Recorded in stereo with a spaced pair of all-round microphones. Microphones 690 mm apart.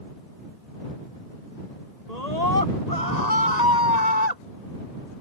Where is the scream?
80° left; by 4.4 s 85° left.